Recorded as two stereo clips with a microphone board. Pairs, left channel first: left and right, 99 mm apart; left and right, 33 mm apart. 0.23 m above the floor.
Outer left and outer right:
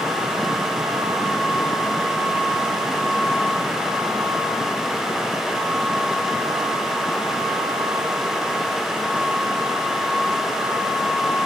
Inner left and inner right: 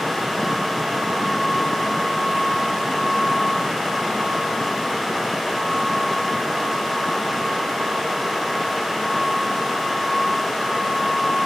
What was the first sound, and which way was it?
Only background noise.